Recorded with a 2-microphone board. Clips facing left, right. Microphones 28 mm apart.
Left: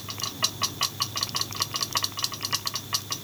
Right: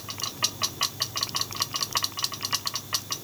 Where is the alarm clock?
I don't hear an alarm clock.